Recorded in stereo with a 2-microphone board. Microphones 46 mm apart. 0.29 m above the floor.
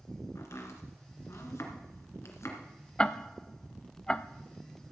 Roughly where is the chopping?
Left.